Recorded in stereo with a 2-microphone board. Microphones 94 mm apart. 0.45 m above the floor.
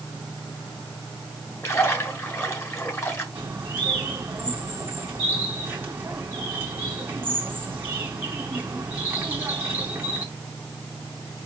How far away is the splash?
About 3 m.